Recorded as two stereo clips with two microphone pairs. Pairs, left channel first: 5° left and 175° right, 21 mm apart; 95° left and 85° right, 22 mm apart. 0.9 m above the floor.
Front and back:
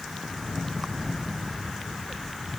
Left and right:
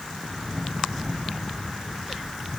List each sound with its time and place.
Only background noise.